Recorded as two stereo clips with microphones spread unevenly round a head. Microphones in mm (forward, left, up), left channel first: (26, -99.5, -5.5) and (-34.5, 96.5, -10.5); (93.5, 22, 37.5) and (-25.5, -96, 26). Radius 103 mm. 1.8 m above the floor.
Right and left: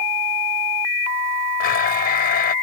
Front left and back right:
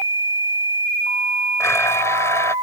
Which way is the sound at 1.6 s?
30° right.